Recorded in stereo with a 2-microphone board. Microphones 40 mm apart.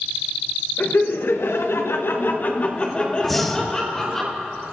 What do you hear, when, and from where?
0.8 s laughter: 60° left (ahead or behind), 1.4 m; by 4.2 s 5° left (ahead or behind), 2 m
3.2 s breathing: centre (ahead or behind), 0.9 m